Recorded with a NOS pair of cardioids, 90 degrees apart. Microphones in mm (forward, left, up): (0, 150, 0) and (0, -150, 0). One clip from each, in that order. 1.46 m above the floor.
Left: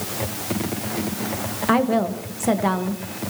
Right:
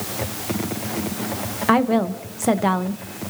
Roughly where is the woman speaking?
Ahead right.